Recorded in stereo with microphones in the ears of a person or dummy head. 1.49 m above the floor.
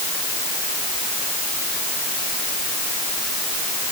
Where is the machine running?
No machine running in this recording.